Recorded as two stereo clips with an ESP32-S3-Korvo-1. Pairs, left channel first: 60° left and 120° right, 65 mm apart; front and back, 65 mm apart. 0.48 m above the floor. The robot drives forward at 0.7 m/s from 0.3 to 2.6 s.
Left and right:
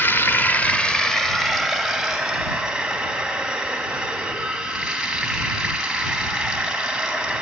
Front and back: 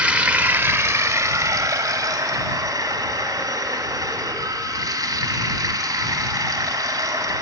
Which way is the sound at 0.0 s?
115° left.